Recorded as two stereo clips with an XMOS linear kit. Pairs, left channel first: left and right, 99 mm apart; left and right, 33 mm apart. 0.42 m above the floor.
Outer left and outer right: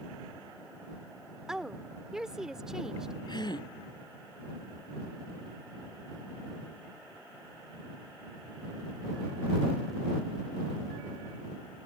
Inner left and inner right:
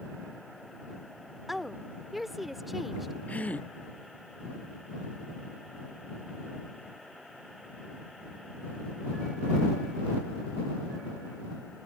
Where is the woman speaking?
5° right (ahead or behind).